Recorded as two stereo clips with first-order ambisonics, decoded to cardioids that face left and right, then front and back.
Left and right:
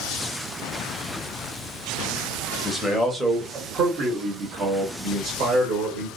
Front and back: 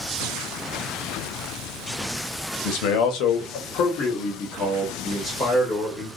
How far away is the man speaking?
About 0.9 m.